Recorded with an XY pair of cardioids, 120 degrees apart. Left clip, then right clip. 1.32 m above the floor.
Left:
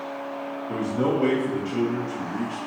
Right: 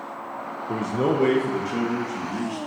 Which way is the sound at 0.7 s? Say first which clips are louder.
Right 1 dB; 25° right.